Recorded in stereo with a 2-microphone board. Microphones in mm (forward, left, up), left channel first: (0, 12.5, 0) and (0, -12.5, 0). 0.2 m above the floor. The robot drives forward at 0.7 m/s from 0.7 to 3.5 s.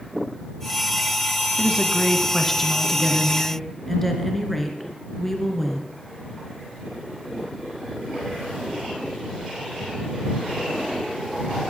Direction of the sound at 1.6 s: Centre (ahead or behind).